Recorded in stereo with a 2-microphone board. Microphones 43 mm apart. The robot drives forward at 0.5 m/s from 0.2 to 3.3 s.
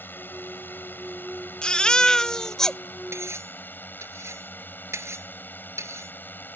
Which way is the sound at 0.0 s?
50° left (ahead or behind).